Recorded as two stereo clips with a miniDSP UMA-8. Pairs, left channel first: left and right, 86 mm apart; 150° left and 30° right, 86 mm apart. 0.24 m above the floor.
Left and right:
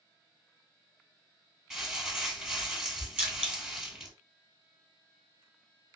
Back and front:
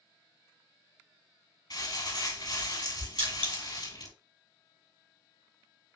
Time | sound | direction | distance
1.7 | crumpling | straight behind | 4 m
3.2 | crushing | 15° right | 2.5 m